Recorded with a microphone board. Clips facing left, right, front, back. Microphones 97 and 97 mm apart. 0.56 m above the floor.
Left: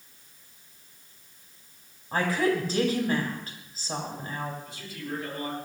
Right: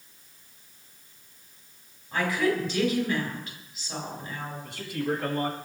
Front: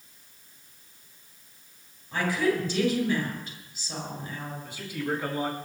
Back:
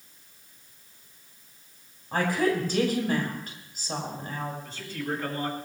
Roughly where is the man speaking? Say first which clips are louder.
Right 8 dB, front 2 dB; right.